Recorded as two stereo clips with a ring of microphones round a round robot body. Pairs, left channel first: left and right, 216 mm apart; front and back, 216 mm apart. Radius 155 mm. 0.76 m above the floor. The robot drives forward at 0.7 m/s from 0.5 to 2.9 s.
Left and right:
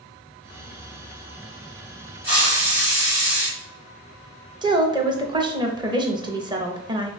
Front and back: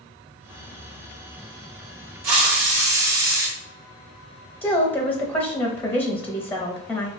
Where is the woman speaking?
70° right, 0.6 m.